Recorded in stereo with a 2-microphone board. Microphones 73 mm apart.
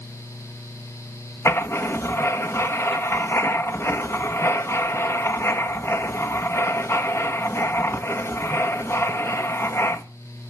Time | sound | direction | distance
1.4 | writing | 35° left (ahead or behind) | 1.5 m